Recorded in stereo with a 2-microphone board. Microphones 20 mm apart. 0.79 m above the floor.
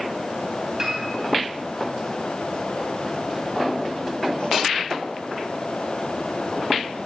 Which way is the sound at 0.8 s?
25° right (ahead or behind).